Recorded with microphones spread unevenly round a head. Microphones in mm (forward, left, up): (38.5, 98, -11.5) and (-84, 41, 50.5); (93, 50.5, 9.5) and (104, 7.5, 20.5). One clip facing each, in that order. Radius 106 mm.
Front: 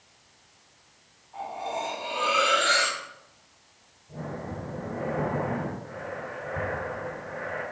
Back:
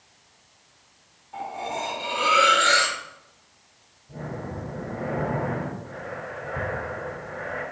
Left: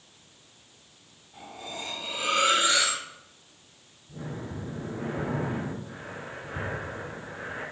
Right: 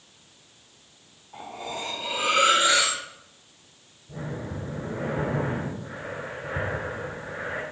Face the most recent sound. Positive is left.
turn(degrees=-70)